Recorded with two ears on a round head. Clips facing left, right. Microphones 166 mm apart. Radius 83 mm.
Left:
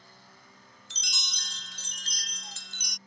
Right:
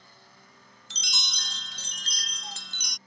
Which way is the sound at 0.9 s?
55° right (ahead or behind).